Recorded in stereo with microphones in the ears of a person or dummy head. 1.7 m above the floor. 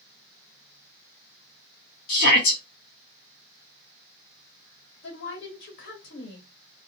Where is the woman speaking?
60° left (ahead or behind), 1.2 m.